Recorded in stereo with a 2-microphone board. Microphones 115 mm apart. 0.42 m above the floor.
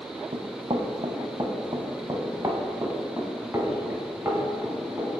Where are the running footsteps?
55° right (ahead or behind), 0.7 m; by 5.2 s 10° right (ahead or behind), 3 m.